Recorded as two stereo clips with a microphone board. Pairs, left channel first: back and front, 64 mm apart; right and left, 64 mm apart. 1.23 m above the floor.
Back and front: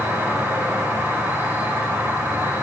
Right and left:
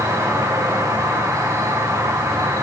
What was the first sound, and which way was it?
An insect, 60° left.